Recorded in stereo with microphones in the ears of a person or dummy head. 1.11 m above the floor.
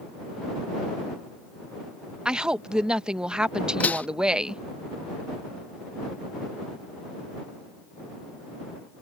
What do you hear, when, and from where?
2.2 s a woman speaking: 5° right (ahead or behind)
3.8 s dishes clattering: 5° left (ahead or behind)